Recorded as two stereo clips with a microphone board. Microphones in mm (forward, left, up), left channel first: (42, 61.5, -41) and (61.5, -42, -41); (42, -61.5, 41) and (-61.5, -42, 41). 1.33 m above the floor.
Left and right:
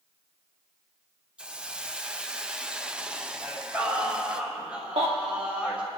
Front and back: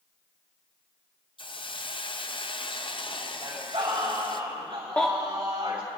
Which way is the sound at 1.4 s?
Straight ahead.